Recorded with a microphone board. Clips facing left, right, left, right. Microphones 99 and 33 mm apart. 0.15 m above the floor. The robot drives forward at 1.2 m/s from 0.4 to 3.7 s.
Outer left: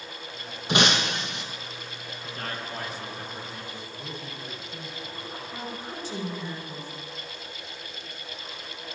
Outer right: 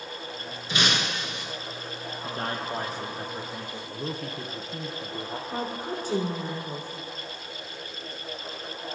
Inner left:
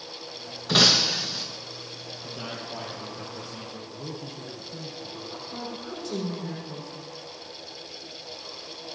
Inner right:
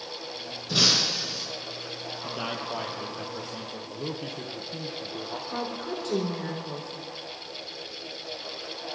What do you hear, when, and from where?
0.7 s breaking glass: 70° left (ahead or behind), 4.5 m; by 1.4 s 75° left (ahead or behind), 4 m
2.2 s a man speaking: 35° right (ahead or behind), 3.5 m; by 3.8 s 20° right (ahead or behind), 5 m
3.9 s a man speaking: 60° right (ahead or behind), 2.5 m
5.5 s a woman speaking: 50° right (ahead or behind), 8 m